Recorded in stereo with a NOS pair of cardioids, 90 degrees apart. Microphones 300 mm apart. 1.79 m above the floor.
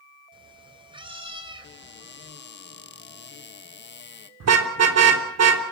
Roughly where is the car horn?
Ahead right.